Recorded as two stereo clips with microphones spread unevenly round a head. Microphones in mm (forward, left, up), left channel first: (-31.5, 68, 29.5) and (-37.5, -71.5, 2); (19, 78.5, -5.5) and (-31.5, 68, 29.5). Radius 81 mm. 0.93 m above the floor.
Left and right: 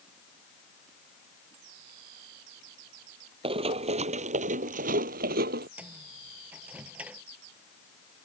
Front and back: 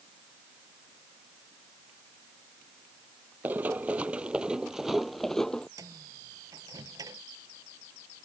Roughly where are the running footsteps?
Behind right.